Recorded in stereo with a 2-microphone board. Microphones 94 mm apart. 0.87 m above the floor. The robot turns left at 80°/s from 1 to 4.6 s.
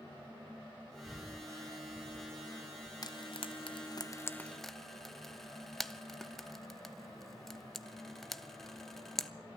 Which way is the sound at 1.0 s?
Centre (ahead or behind).